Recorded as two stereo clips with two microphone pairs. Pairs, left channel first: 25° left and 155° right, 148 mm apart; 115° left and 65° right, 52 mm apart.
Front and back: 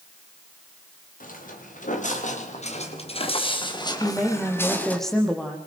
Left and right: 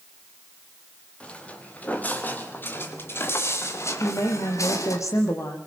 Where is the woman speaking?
115° left, 5.5 m.